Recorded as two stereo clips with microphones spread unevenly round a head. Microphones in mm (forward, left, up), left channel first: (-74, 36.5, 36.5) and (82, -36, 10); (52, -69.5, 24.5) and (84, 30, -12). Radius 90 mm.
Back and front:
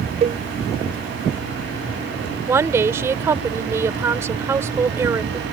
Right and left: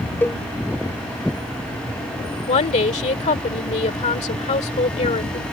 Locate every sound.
0.2 s a cowbell: 25° right
2.5 s a woman speaking: 100° right